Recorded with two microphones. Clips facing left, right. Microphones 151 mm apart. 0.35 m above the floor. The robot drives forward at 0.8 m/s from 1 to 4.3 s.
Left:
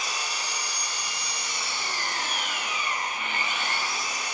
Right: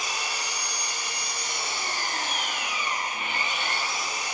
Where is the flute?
No flute in this recording.